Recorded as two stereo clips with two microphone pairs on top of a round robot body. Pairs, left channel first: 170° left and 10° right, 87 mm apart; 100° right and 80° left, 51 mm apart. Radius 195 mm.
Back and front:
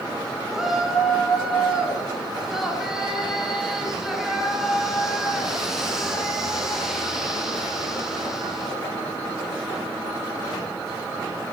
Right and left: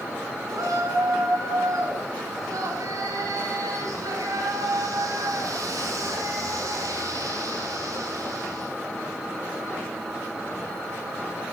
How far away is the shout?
About 5.5 m.